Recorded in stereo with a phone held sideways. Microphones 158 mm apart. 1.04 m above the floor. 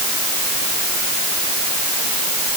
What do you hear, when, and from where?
Only background noise.